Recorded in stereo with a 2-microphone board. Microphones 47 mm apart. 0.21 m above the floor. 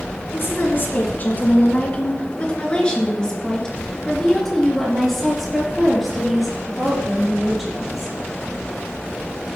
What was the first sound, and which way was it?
A woman speaking, 50° left (ahead or behind).